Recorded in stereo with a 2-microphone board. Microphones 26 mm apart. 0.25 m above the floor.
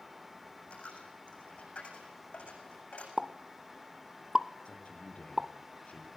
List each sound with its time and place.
0.7 s a dropped coin: 60° left (ahead or behind), 7.5 m
3.2 s a pop: 30° right (ahead or behind), 0.6 m
4.7 s a man speaking: 60° left (ahead or behind), 4.5 m